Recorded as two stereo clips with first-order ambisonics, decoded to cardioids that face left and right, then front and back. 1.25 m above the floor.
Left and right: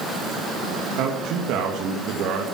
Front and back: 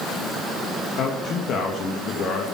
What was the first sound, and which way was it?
A man speaking, 55° right.